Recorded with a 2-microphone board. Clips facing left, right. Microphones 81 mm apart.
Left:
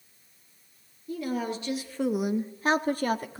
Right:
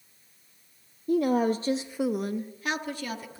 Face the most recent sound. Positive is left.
turn(degrees=50)  # may be behind; listen again after turning